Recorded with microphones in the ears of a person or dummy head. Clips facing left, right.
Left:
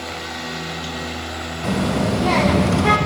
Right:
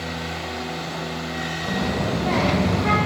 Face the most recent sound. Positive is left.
turn(degrees=50)  # may be behind; listen again after turning